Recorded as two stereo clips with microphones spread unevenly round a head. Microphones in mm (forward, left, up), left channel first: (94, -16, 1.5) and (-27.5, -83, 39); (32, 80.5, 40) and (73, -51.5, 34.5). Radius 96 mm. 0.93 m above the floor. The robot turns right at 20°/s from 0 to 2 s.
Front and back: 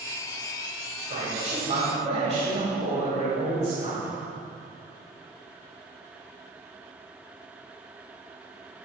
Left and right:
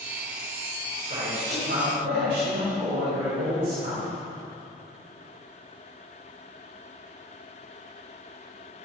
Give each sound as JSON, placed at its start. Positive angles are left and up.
{"t": 1.0, "sound": "a man speaking", "azimuth_deg": -130, "distance_m": 5.0}